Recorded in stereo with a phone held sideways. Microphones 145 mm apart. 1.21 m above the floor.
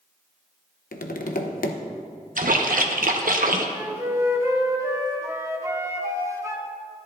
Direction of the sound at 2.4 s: 70° right (ahead or behind).